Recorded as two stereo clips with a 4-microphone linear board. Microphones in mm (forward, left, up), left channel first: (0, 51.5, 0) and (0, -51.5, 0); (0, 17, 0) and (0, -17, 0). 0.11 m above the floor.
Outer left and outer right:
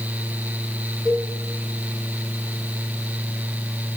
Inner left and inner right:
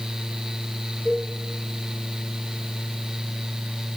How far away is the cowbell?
About 8.5 m.